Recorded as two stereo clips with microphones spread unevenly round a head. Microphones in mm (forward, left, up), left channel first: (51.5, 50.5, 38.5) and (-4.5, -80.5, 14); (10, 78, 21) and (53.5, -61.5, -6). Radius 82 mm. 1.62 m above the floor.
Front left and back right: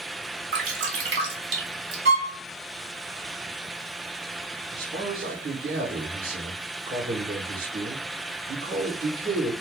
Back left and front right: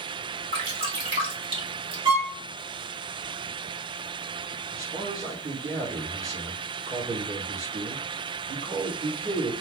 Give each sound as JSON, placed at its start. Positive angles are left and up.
{"t": 0.5, "sound": "dripping", "azimuth_deg": -135, "distance_m": 1.4}
{"t": 2.0, "sound": "a violin", "azimuth_deg": -145, "distance_m": 1.7}
{"t": 4.7, "sound": "a man speaking", "azimuth_deg": -145, "distance_m": 2.0}